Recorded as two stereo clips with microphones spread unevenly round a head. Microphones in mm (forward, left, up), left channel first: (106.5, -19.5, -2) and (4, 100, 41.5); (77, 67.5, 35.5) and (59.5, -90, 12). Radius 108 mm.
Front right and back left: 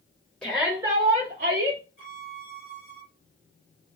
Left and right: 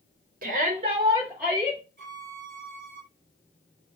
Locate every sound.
0.4 s a shout: 130° right, 0.8 m; by 1.8 s 160° left, 0.6 m
2.0 s a violin: 80° right, 1.7 m